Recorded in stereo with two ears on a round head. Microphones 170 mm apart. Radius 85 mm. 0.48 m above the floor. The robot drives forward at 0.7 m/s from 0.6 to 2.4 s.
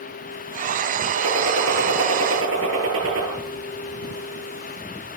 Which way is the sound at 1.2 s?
85° right.